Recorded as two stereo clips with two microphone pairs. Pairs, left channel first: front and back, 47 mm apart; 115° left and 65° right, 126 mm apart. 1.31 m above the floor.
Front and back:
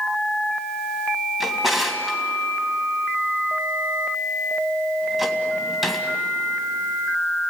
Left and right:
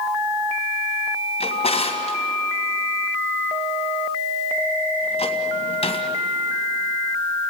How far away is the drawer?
About 2 m.